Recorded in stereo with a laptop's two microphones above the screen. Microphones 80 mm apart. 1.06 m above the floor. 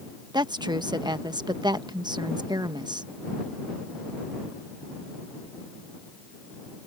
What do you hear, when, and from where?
0.3 s a woman speaking: 60° right (ahead or behind)